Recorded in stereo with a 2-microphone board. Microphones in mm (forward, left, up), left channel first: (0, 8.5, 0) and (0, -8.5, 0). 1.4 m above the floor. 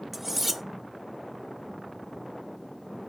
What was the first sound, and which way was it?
Cutlery clinking, 5° right (ahead or behind).